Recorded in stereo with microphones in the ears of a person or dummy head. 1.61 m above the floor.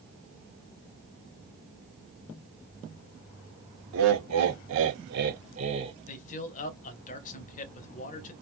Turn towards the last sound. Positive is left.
turn(degrees=40)  # may be behind; listen again after turning